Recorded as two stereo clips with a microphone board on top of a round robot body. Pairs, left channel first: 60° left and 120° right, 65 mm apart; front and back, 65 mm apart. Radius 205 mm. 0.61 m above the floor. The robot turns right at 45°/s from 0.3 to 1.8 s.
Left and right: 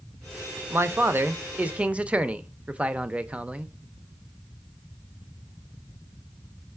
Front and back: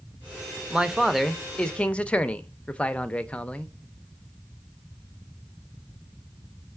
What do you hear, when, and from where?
0.7 s a man speaking: 110° right, 0.6 m; by 3.7 s 60° right, 0.6 m